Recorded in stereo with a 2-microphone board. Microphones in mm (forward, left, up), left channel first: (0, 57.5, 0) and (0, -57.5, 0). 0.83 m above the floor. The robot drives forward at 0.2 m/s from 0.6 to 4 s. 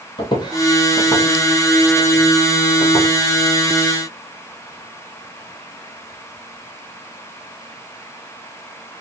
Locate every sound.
0.2 s footsteps: 40° left (ahead or behind), 1.5 m; by 3.1 s 20° left (ahead or behind), 3 m